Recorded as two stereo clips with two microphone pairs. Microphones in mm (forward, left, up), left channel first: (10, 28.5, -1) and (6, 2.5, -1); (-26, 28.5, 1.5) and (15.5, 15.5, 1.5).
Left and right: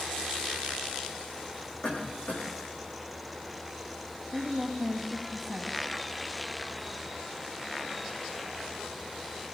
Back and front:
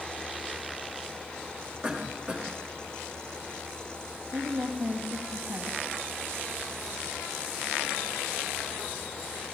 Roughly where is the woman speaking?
Ahead.